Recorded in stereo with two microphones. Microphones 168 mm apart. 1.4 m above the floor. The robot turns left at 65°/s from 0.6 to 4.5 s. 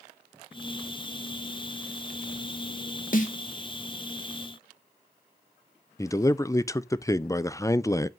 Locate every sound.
3.1 s a snare drum: 55° left (ahead or behind), 1.5 m; by 3.4 s 40° left (ahead or behind), 1.5 m
6.0 s a man speaking: 20° left (ahead or behind), 0.6 m